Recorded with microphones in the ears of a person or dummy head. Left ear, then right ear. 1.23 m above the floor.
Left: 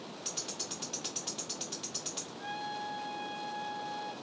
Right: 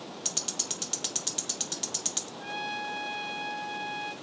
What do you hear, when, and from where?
0.2 s ticking: 25° right (ahead or behind), 0.6 m
2.4 s a trumpet: 40° right (ahead or behind), 1.0 m